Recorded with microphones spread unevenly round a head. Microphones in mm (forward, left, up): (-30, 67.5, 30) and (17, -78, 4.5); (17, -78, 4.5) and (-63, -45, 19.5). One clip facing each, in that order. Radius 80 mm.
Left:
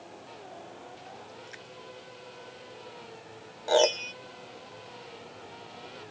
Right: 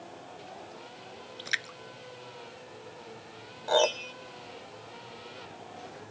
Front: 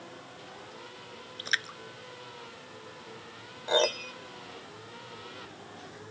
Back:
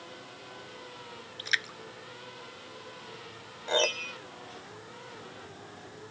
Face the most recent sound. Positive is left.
turn(degrees=70)